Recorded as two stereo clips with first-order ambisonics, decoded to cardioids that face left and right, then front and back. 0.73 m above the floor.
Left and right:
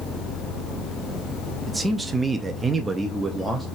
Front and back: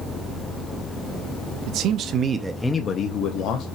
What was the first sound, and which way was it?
A man speaking, 170° right.